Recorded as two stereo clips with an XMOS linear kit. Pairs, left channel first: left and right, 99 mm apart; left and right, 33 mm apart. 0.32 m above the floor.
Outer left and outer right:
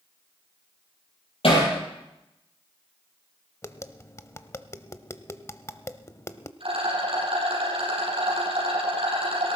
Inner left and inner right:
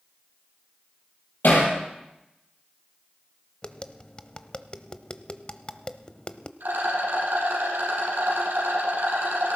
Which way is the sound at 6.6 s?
65° right (ahead or behind).